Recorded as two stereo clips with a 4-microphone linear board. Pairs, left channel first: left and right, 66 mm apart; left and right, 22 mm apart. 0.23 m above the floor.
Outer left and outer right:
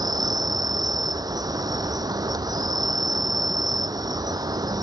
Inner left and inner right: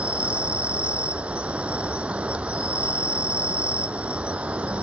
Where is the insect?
85° right.